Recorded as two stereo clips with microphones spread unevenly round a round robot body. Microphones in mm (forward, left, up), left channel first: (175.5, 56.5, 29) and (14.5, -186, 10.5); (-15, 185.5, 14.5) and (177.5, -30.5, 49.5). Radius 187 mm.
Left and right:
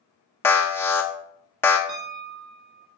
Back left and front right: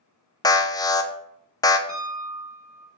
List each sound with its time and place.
0.4 s an alarm: 135° left, 0.6 m
1.9 s a piano: 135° right, 1.5 m